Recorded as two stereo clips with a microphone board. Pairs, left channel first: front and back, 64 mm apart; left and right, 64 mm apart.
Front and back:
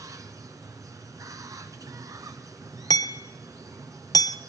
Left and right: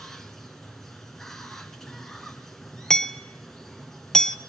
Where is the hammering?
10° left, 1.2 m.